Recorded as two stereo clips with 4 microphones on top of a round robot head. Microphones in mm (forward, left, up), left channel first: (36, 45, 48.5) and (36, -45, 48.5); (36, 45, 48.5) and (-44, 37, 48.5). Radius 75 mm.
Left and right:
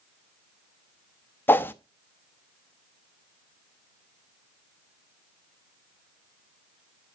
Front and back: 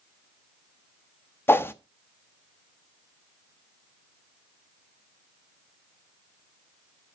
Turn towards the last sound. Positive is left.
turn(degrees=40)